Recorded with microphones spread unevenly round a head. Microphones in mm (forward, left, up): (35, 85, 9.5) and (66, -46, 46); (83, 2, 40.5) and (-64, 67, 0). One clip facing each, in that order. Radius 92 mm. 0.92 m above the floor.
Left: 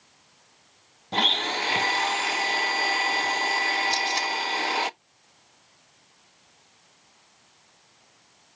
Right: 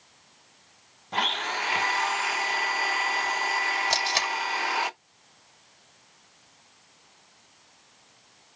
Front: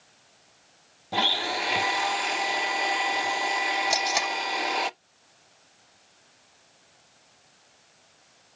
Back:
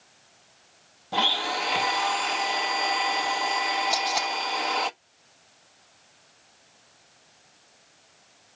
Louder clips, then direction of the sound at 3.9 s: Left 1 dB, even; 70° right.